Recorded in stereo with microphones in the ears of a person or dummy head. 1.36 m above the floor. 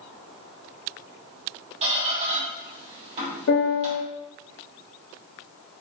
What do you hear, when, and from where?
1.8 s a squeak: 35° right (ahead or behind), 1.3 m
3.5 s a piano: 60° left (ahead or behind), 1.0 m